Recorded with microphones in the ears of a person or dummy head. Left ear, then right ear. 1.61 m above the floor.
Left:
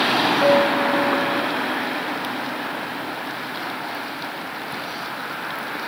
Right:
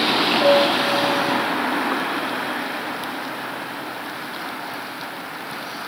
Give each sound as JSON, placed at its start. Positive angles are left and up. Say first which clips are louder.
{"t": 0.4, "sound": "a piano", "louder": "right 1 dB", "side_deg": 55, "distance_m": 1.1}